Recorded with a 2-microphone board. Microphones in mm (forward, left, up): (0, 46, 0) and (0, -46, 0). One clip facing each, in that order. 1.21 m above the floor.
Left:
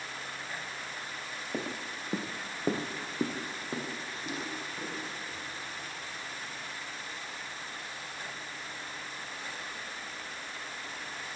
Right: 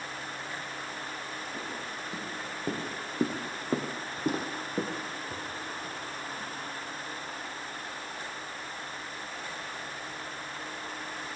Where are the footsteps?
55° left (ahead or behind), 2 m; by 6.5 s 70° right (ahead or behind), 4 m.